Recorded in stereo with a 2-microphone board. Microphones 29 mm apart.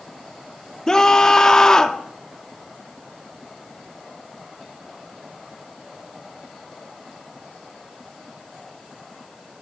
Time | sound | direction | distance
0.9 | a scream | 20° left (ahead or behind) | 2 m